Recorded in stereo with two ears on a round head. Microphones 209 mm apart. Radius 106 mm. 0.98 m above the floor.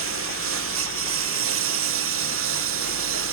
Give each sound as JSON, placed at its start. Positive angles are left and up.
{"t": 0.0, "sound": "a lawn mower", "side_deg": -65}